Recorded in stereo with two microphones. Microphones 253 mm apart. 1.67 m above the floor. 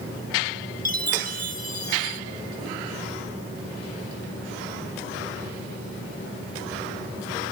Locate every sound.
0.8 s a chime: 35° right (ahead or behind), 1.9 m